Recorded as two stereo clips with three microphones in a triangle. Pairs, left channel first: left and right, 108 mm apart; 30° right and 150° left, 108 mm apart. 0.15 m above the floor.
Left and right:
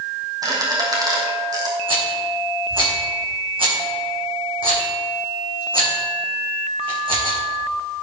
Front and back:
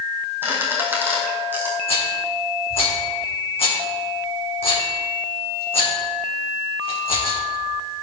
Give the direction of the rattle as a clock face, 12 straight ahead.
2 o'clock.